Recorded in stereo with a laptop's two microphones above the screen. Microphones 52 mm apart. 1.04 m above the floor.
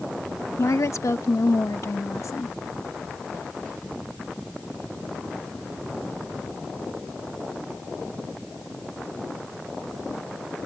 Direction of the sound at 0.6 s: 65° left (ahead or behind).